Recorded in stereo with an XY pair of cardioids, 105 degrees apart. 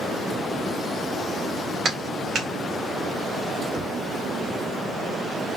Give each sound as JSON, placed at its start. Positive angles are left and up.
{"t": 1.9, "sound": "a clap", "azimuth_deg": -55, "distance_m": 2.0}
{"t": 3.7, "sound": "knocking", "azimuth_deg": -35, "distance_m": 2.5}